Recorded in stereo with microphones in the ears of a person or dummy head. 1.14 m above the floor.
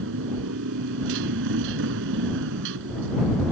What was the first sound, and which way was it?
A motorcycle, 70° right (ahead or behind).